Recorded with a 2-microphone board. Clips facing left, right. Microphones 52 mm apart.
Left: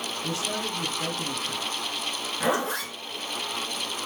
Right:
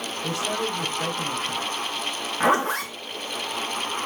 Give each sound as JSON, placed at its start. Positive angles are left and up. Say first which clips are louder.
{"t": 0.2, "sound": "a man speaking", "louder": "right 5 dB", "side_deg": -50, "distance_m": 1.8}
{"t": 2.4, "sound": "a zipper", "louder": "right 5 dB", "side_deg": -55, "distance_m": 2.5}